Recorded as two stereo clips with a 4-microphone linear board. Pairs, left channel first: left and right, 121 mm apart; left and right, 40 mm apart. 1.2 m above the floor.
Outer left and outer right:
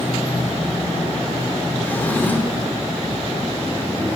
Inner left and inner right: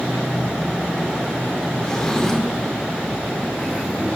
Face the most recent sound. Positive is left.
turn(degrees=15)  # may be behind; listen again after turning